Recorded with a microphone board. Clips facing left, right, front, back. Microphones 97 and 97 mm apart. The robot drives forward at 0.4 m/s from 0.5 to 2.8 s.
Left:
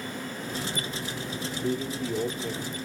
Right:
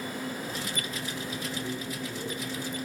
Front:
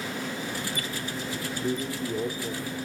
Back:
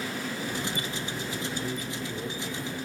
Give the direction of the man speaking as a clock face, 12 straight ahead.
10 o'clock.